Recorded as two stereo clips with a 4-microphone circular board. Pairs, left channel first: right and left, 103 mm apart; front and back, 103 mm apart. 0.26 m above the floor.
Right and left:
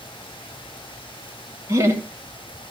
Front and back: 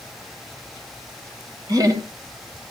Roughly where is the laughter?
Behind left.